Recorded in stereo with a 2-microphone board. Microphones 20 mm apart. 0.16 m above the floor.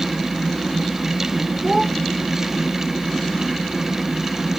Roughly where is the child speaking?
Centre.